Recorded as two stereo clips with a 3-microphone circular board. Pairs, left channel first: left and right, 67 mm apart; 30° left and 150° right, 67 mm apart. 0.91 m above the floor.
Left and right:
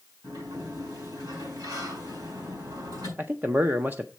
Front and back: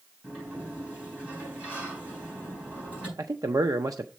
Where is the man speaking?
145° right, 0.5 m.